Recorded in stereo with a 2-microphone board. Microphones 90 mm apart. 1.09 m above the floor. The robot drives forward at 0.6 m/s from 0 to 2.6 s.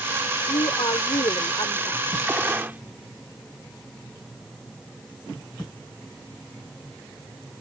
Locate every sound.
0.5 s a woman speaking: 75° left (ahead or behind); by 2.0 s 60° left (ahead or behind)
2.3 s a gunshot: 20° right (ahead or behind)